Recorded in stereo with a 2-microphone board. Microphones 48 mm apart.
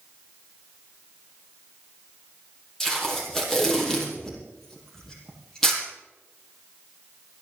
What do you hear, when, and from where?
2.8 s tape being pulled: 10° left (ahead or behind), 5 m